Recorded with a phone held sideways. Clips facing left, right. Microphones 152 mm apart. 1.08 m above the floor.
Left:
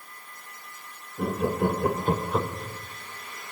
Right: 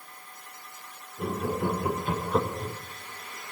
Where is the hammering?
No hammering in this recording.